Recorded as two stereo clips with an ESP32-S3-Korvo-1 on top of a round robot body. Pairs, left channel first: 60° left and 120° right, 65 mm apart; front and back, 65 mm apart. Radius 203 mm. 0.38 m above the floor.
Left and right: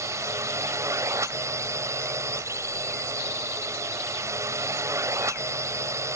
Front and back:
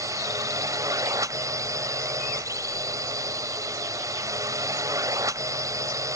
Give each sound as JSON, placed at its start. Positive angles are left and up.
{"t": 0.0, "sound": "a drone", "azimuth_deg": -155}